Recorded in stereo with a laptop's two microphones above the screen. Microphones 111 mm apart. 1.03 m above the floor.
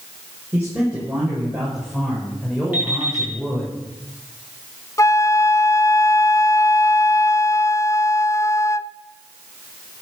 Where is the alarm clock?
15° right (ahead or behind), 7 m.